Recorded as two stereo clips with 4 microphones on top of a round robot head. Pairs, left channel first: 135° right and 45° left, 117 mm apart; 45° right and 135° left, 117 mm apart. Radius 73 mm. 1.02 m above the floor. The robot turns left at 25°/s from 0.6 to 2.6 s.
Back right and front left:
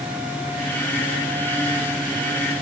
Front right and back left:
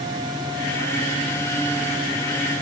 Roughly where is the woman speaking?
I don't hear a woman speaking.